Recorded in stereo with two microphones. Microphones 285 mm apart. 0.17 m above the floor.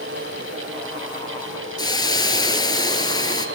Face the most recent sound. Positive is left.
turn(degrees=15)  # may be behind; listen again after turning